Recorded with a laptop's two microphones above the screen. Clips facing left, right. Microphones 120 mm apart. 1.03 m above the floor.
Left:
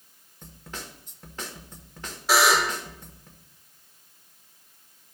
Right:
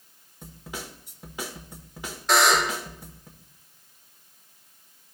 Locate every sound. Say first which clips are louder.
0.4 s a snare drum: right 3 dB; 10° right (ahead or behind), 1.2 m
2.3 s a buzzer: even; 5° left (ahead or behind), 1.3 m